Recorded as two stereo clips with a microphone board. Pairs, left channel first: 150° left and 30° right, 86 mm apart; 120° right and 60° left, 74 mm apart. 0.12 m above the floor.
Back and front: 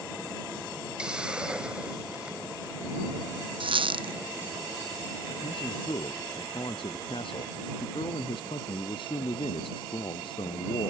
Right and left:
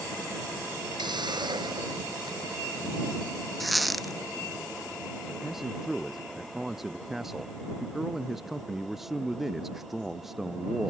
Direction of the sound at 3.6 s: 30° right.